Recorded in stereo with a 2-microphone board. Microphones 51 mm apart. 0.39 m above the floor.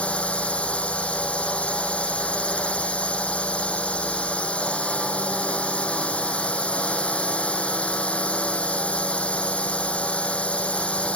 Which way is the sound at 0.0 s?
20° left (ahead or behind).